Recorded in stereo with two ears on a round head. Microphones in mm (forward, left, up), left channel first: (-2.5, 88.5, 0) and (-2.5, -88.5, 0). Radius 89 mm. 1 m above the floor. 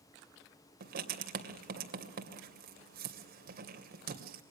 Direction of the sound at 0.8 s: 50° right (ahead or behind).